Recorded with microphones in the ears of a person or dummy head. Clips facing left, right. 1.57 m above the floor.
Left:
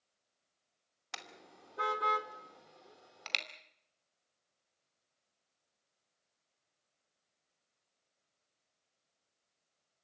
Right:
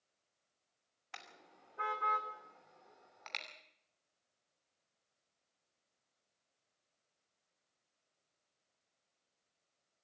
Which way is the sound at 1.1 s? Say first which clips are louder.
Left 5 dB; 70° left (ahead or behind).